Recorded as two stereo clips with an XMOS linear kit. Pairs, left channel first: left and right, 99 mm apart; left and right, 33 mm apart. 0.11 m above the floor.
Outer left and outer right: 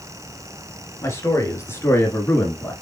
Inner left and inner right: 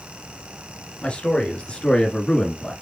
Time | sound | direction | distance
1.0 | a man speaking | 30° left (ahead or behind) | 1.6 m